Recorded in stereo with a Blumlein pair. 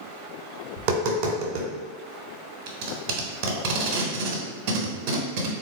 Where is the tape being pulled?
45° right, 1.0 m.